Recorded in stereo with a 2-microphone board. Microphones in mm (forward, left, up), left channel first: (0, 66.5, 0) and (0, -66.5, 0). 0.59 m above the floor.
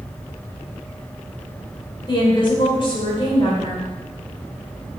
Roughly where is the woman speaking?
Left.